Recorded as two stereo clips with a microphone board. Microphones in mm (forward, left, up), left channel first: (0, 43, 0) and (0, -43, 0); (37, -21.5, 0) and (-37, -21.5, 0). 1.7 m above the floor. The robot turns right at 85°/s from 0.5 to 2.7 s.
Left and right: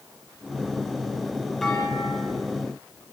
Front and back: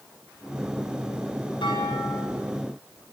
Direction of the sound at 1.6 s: Straight ahead.